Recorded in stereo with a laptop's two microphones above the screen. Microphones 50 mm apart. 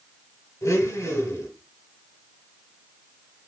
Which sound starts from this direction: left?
A blender, at 0.6 s.